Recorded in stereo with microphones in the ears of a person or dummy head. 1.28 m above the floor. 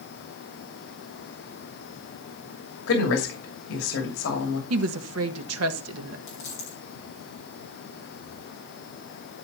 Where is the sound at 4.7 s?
85° right, 1.4 m.